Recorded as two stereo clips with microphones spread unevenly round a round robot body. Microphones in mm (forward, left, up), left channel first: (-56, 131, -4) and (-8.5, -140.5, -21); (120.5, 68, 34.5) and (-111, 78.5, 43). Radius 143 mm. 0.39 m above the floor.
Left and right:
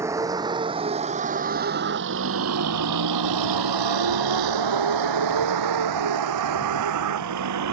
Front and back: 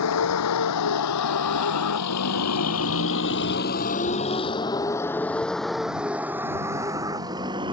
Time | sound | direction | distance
0.0 | a vehicle | straight ahead | ?